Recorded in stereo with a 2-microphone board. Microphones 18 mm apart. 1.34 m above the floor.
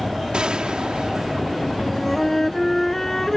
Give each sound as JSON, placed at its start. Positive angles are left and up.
{"t": 0.3, "sound": "a gunshot", "side_deg": -65}
{"t": 1.8, "sound": "a flute", "side_deg": 25}